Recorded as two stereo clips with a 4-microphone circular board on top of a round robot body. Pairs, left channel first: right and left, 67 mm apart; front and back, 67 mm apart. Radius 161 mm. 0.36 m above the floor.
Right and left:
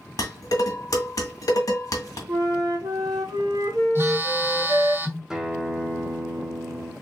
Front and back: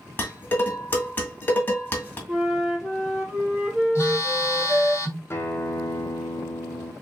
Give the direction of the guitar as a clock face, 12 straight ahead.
12 o'clock.